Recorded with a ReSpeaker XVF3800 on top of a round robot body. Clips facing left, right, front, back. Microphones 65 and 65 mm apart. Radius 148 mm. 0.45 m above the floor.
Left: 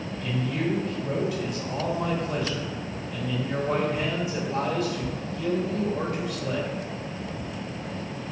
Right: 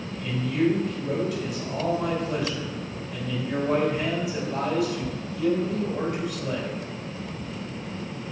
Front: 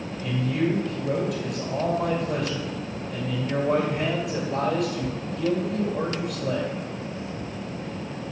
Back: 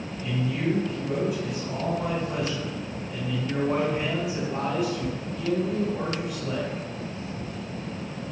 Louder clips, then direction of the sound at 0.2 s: Right 4 dB, front 3 dB; 5° left.